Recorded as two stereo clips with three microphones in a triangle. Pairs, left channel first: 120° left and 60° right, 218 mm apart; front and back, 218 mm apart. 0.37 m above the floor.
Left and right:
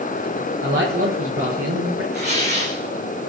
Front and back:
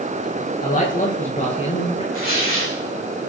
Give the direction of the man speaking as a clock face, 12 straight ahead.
2 o'clock.